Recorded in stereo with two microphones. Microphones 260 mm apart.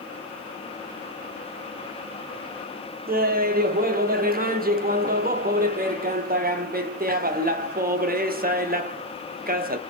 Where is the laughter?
35° right (ahead or behind), 0.6 m.